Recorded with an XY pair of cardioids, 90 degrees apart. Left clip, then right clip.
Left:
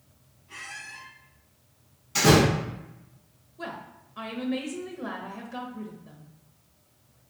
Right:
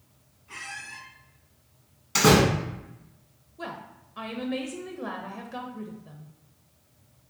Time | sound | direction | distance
0.5 | a squeak | 70° right | 1.3 m
2.1 | a door slam | 70° right | 1.3 m
3.6 | a woman speaking | 20° right | 0.5 m